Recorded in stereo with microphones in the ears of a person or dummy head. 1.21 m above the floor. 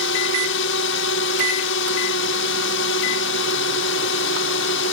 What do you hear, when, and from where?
0.0 s a drone: 70° left (ahead or behind)